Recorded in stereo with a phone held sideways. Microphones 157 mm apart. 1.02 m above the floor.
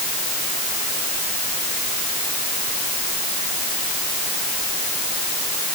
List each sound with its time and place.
Only background noise.